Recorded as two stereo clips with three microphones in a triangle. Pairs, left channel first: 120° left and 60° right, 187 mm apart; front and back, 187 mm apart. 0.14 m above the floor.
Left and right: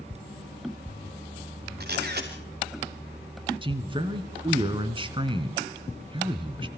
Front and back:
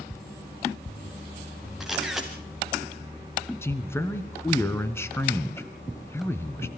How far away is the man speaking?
About 1.5 m.